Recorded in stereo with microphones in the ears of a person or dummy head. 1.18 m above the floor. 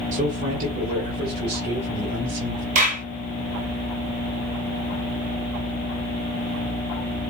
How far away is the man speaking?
About 1.7 m.